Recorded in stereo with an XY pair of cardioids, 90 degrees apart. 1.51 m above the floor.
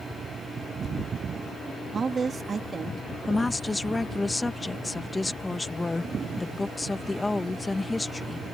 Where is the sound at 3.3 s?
25° left.